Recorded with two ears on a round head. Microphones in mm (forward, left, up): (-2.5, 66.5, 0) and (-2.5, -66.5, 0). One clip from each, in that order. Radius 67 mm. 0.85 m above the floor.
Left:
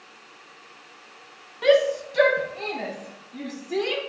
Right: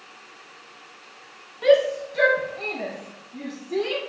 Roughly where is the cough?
No cough in this recording.